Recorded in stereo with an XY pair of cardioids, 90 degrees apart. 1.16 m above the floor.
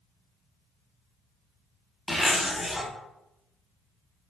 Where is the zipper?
20° left, 0.9 m.